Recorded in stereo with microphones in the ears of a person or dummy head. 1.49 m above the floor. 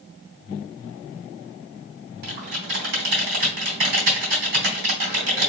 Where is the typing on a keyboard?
55° right (ahead or behind), 2.5 m.